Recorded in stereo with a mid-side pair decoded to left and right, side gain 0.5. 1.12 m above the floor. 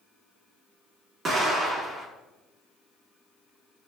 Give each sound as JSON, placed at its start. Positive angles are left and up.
{"t": 1.2, "sound": "an explosion", "azimuth_deg": -45, "distance_m": 1.5}